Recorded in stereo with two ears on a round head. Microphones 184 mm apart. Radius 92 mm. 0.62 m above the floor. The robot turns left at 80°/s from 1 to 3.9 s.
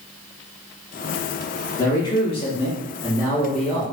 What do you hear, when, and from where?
1.8 s a man speaking: 15° left (ahead or behind), 0.5 m; by 3.8 s 5° right (ahead or behind), 0.5 m